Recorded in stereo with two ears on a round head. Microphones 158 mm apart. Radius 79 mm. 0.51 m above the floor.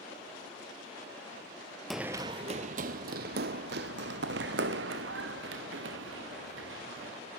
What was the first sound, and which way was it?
Running footsteps, centre (ahead or behind).